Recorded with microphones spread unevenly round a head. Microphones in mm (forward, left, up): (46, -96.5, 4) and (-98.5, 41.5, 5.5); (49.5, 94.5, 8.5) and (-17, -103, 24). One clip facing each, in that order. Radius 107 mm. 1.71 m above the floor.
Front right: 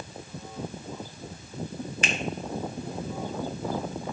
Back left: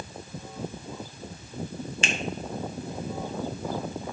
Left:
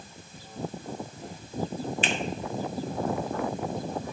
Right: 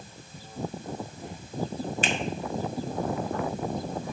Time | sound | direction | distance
2.0 | a finger snap | 160° right | 1.4 m